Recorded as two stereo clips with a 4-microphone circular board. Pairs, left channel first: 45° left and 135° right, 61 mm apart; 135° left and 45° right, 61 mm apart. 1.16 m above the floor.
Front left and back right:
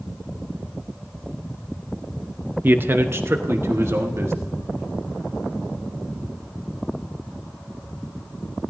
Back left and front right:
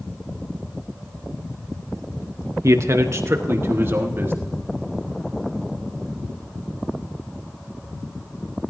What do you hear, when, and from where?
2.6 s a man speaking: 80° right, 0.8 m; by 4.5 s 95° right, 1.9 m